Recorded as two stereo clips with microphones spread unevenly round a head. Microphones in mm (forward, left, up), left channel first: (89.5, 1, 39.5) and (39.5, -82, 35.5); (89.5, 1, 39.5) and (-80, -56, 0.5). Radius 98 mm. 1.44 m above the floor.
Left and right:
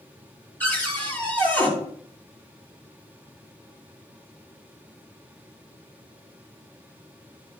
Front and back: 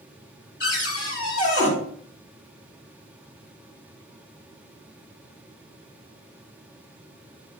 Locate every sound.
0.6 s a cupboard door: 15° right, 4.5 m